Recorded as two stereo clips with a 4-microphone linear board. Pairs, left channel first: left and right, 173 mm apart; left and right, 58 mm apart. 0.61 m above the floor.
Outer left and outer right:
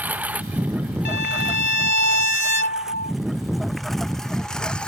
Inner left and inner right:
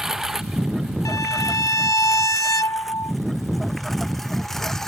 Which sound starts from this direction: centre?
A lawn mower, at 0.0 s.